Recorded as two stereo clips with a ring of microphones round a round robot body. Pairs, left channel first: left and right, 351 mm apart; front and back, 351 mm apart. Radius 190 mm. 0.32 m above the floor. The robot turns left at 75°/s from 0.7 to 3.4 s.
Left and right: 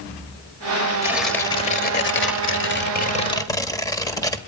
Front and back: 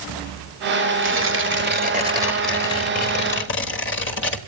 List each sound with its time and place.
1.0 s tearing paper: 165° right, 1.6 m; by 4.4 s 15° left, 1.6 m